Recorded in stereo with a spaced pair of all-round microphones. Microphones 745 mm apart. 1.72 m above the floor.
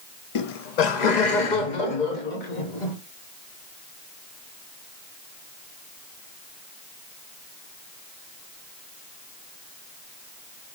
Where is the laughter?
50° left (ahead or behind), 0.5 m; by 3.0 s 80° left, 1.9 m.